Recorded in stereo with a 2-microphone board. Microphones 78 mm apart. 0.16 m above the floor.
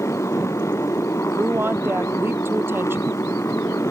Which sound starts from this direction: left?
A motorcycle, at 0.0 s.